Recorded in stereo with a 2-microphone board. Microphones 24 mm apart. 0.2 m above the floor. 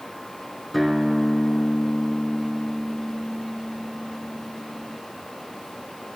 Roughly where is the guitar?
Centre.